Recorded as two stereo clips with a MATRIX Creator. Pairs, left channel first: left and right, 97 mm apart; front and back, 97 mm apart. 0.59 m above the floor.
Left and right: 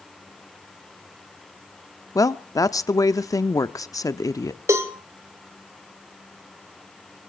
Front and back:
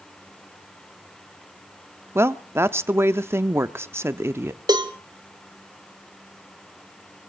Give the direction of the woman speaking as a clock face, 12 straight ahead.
8 o'clock.